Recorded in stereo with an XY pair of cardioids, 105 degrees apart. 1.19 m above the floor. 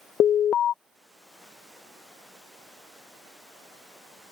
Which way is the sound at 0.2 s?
55° left.